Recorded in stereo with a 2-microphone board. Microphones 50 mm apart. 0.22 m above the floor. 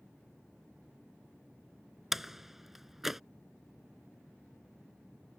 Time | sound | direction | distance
2.1 | a door slam | 5° right (ahead or behind) | ?